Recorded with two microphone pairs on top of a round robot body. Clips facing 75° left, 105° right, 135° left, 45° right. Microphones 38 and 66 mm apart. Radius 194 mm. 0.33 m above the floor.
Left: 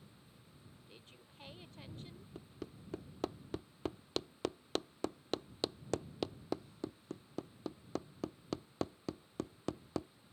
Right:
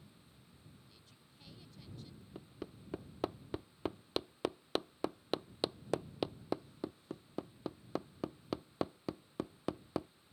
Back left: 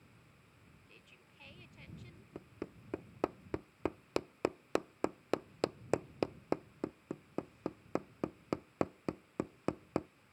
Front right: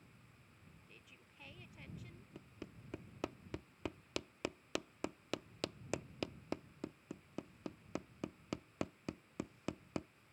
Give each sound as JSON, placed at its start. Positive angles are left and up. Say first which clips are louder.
{"t": 0.9, "sound": "a woman speaking", "louder": "left 4 dB, back left 1 dB", "azimuth_deg": 45}
{"t": 2.4, "sound": "hammering", "louder": "right 1 dB, back left 8 dB", "azimuth_deg": 175}